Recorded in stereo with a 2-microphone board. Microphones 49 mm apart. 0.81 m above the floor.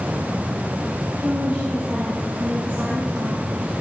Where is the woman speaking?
25° right (ahead or behind), 6 m; by 3.7 s 40° right (ahead or behind), 6.5 m.